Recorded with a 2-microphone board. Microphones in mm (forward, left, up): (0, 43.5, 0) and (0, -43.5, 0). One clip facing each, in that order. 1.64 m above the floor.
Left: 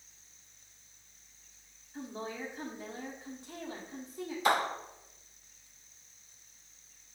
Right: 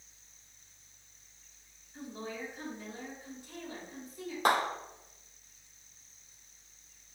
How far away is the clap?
About 2.5 m.